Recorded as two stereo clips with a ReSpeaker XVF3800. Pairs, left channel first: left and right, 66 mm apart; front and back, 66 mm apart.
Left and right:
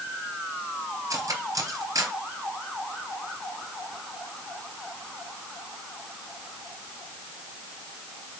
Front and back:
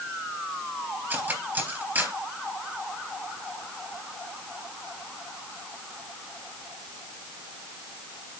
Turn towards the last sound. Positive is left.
turn(degrees=-120)